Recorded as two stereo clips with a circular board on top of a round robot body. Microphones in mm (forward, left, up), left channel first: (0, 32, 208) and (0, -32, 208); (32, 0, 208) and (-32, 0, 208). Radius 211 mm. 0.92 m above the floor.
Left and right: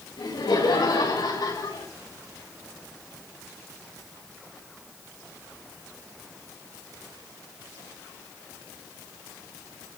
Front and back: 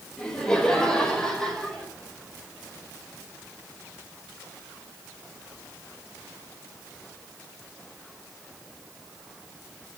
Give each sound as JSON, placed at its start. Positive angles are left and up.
{"t": 0.2, "sound": "laughter", "azimuth_deg": 80, "distance_m": 5.0}